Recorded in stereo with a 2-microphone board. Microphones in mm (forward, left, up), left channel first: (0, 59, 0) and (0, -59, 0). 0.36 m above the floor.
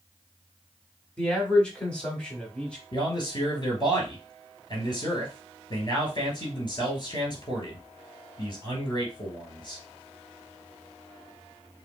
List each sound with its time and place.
1.2 s a man speaking: 5° left (ahead or behind), 1.2 m
2.9 s a man speaking: 40° left (ahead or behind), 1.9 m